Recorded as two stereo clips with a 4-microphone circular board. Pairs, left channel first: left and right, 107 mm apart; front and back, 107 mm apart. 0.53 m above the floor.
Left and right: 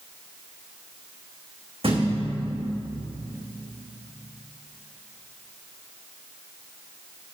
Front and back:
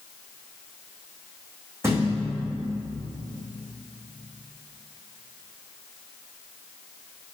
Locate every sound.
1.8 s a thud: 115° right, 3 m